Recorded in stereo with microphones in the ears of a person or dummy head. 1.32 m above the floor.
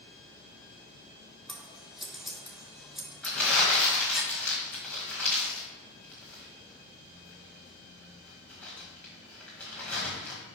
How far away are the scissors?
About 1.4 m.